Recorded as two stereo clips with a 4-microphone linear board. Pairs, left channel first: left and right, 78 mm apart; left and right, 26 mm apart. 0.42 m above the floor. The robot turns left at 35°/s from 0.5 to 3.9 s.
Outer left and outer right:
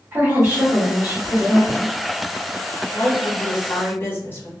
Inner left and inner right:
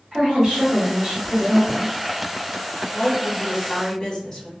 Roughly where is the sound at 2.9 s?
Behind.